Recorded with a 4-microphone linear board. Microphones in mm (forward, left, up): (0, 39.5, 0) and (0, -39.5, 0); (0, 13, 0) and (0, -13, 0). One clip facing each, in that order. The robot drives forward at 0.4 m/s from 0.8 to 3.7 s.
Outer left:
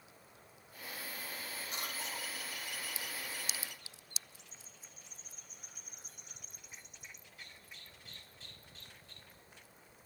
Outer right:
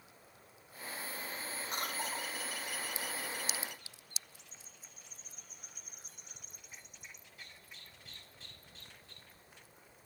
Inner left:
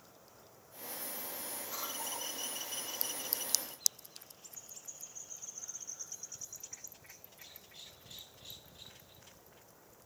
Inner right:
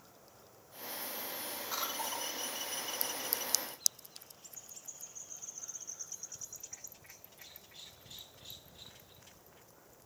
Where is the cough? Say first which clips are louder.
Outer right 5 dB, inner right 4 dB; 55° right (ahead or behind), 1.8 m.